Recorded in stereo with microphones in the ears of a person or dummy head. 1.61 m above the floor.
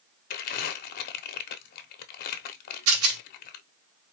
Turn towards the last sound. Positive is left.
turn(degrees=-85)